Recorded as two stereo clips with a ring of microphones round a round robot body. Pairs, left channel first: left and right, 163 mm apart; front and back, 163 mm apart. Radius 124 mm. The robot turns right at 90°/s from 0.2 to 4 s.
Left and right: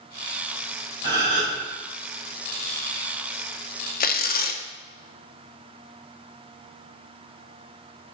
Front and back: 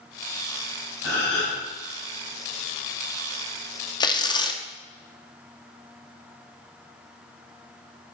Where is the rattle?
I don't hear a rattle.